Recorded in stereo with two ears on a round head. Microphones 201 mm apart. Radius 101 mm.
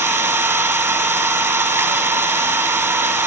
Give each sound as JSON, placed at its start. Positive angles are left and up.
{"t": 0.0, "sound": "an engine running", "side_deg": -10, "distance_m": 2.0}